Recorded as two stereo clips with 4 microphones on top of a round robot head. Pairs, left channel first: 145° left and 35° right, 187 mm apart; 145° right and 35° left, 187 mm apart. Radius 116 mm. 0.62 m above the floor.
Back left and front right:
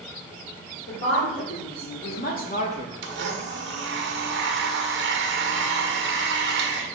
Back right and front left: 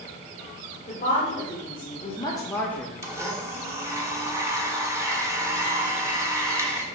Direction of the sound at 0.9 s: 160° left.